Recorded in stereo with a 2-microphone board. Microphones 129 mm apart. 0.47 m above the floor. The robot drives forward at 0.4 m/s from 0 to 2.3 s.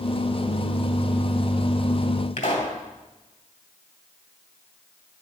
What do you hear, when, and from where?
2.4 s a pop: 75° left (ahead or behind), 2.0 m